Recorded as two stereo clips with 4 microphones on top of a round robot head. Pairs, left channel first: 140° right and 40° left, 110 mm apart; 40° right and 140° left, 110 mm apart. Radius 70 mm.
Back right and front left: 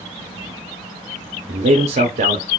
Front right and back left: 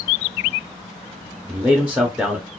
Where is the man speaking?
60° left, 0.6 m.